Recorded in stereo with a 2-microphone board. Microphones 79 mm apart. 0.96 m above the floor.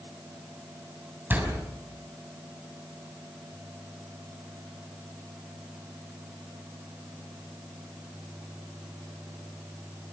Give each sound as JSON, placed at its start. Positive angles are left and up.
{"t": 1.3, "sound": "a door slam", "side_deg": -25, "distance_m": 5.5}